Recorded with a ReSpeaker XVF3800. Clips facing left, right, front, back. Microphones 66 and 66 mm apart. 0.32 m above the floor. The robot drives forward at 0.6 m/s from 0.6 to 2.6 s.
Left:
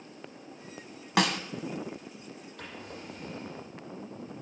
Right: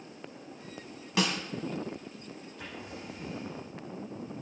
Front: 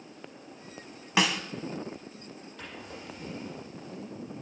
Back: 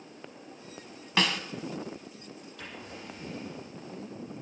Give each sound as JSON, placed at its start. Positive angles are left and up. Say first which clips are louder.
{"t": 1.2, "sound": "a snare drum", "louder": "left 3 dB, front 2 dB", "azimuth_deg": 75, "distance_m": 0.9}
{"t": 2.6, "sound": "a drawer", "louder": "even, even", "azimuth_deg": 80, "distance_m": 7.0}